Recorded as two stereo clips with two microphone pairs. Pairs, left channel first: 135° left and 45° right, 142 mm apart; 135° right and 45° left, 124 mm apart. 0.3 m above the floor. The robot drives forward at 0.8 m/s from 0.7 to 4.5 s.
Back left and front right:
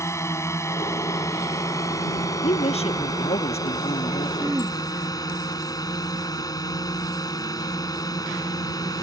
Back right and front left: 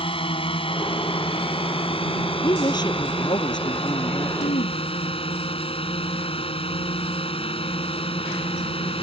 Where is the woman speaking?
170° left; by 4.3 s 175° left.